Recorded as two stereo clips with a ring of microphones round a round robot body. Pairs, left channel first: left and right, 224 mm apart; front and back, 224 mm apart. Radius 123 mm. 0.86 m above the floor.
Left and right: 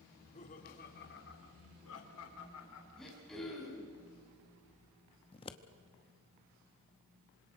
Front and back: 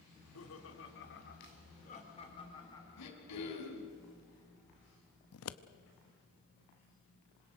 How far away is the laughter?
About 3 m.